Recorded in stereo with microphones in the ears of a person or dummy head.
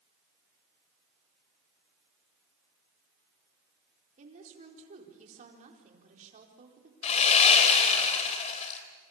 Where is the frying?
I don't hear frying.